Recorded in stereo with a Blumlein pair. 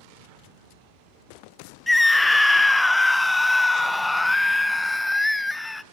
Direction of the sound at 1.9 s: 5° left.